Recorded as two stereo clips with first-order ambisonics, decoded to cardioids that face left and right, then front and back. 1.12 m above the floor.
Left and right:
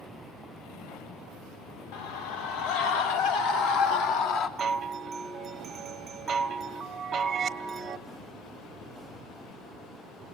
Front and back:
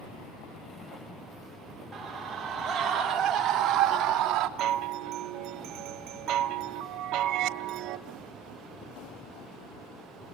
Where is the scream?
100° left, 4.5 m; by 4.5 s 130° left, 3 m.